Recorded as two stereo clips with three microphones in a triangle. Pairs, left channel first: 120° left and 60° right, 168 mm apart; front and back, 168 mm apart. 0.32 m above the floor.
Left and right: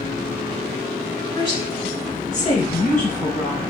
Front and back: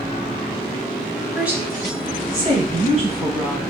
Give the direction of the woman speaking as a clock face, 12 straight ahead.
9 o'clock.